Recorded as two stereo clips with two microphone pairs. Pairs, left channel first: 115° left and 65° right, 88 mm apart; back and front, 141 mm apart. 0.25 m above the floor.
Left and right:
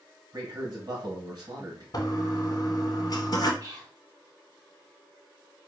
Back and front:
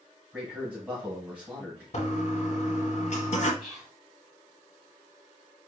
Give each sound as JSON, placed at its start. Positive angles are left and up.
{"t": 0.3, "sound": "a man speaking", "azimuth_deg": -80, "distance_m": 1.8}
{"t": 1.9, "sound": "a toilet flushing", "azimuth_deg": 155, "distance_m": 0.8}
{"t": 3.6, "sound": "whispering", "azimuth_deg": -90, "distance_m": 2.0}